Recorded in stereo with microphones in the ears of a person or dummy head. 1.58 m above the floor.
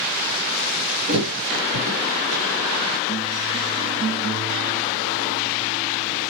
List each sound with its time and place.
1.1 s a thud: 75° right (ahead or behind), 5 m